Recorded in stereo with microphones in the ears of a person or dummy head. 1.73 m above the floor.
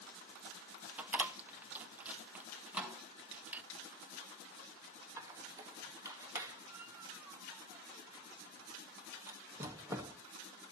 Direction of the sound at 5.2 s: 20° right (ahead or behind).